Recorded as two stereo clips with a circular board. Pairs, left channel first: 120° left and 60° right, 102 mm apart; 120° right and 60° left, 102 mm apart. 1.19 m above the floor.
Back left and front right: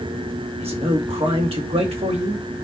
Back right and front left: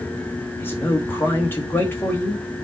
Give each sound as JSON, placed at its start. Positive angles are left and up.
{"t": 0.6, "sound": "a man speaking", "azimuth_deg": -50, "distance_m": 2.5}